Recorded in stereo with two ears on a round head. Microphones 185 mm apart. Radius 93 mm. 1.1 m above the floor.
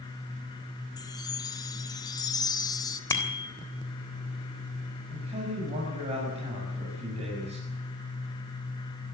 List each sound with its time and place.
1.0 s a chime: 20° left (ahead or behind), 2 m
3.1 s a bicycle bell: 15° left (ahead or behind), 3.5 m
5.1 s a man speaking: 30° right (ahead or behind), 7 m